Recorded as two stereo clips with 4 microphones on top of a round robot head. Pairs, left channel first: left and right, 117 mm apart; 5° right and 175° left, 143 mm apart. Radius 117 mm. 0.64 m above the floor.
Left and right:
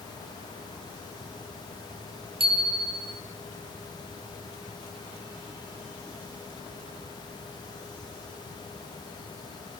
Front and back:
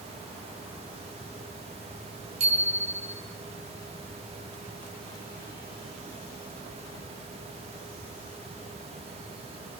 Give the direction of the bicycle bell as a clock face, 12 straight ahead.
4 o'clock.